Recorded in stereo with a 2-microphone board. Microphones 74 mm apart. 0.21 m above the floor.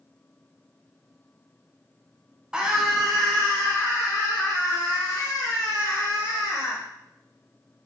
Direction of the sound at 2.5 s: 10° right (ahead or behind).